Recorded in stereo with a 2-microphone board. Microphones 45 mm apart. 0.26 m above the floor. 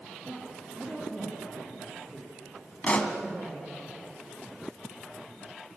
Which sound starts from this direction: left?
A pop, at 2.8 s.